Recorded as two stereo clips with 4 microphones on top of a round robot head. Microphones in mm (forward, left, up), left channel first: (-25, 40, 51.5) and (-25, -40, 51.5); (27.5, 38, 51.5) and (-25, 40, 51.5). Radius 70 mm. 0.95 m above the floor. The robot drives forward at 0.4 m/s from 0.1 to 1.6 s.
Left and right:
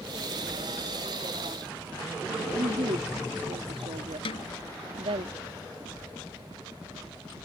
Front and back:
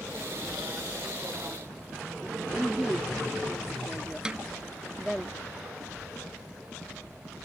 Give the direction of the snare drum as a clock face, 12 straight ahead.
9 o'clock.